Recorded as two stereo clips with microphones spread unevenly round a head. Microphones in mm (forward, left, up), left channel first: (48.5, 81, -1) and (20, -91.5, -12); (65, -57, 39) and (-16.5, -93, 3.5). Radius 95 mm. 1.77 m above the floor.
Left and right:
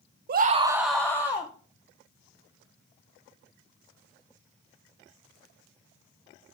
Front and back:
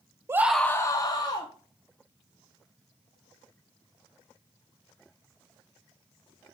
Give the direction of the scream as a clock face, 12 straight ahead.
3 o'clock.